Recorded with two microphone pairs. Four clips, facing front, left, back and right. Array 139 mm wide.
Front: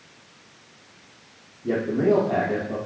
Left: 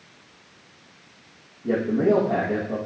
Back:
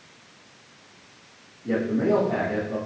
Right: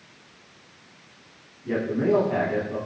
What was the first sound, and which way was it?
A man speaking, 45° left.